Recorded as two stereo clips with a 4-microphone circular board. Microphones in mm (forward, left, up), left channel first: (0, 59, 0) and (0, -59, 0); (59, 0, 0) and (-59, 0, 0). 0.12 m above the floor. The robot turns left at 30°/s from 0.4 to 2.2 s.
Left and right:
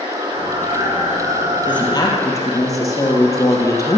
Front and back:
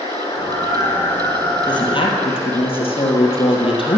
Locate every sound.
0.0 s running water: 50° right, 4 m; by 4.0 s 100° right, 4 m
1.7 s a woman speaking: 45° left, 3 m; by 4.0 s 30° left, 3 m